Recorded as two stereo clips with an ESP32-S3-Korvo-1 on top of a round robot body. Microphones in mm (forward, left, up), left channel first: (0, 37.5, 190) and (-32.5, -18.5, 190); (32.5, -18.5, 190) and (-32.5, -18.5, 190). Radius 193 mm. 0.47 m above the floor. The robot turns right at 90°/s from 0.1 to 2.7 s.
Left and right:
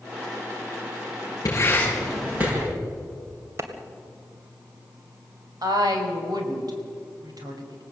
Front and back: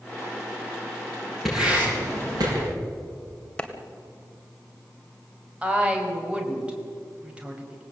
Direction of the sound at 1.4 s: 90° left.